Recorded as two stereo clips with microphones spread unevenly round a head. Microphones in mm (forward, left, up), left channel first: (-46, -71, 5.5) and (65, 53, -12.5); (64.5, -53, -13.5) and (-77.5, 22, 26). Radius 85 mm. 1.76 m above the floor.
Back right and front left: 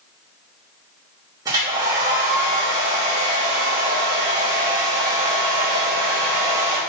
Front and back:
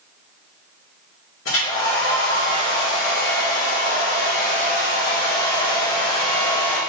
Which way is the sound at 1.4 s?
20° right.